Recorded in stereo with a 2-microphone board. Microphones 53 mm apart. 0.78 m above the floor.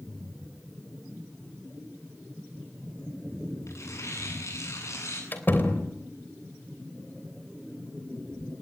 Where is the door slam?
40° left (ahead or behind), 3 m.